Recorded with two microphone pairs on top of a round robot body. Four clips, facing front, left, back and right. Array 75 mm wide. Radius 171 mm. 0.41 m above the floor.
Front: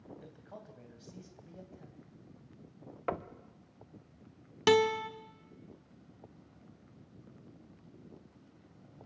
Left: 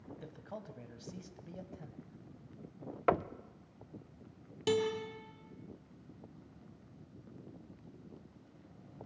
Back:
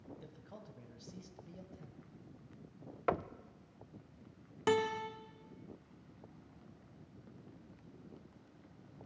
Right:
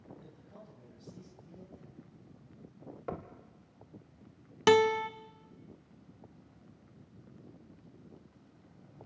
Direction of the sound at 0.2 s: 80° left.